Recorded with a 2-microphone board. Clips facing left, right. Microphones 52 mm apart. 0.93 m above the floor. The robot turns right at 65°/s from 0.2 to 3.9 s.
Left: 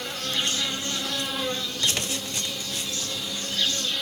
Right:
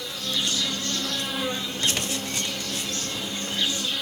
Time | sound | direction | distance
0.0 | an insect | 110° left | 0.7 m